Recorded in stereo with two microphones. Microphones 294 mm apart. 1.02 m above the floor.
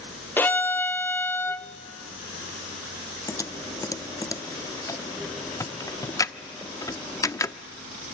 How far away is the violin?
About 0.5 m.